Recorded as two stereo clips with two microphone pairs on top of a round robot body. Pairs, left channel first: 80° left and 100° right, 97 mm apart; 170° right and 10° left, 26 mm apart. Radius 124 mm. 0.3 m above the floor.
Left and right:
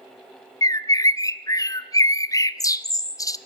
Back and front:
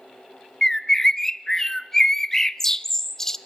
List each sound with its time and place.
0.6 s a bird: 135° left, 0.9 m